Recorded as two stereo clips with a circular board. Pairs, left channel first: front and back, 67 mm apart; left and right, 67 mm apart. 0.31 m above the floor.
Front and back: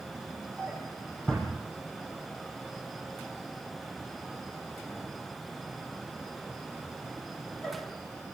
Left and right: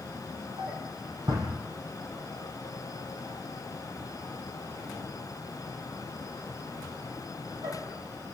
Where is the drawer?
70° right, 7 m.